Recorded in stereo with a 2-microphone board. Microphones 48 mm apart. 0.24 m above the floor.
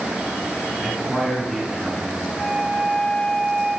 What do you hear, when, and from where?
0.8 s a man speaking: 5° left (ahead or behind), 2.5 m
2.3 s a flute: 50° left (ahead or behind), 3.5 m